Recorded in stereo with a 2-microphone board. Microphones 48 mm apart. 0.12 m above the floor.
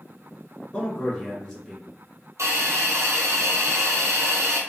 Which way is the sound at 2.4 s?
75° right (ahead or behind).